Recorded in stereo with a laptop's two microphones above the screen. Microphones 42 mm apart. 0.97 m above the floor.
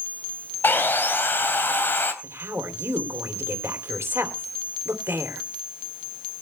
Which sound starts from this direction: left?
Sawing, at 0.6 s.